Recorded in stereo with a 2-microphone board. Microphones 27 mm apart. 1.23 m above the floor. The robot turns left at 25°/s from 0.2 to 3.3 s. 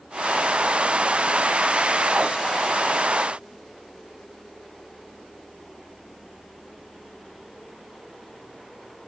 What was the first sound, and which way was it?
Only background noise.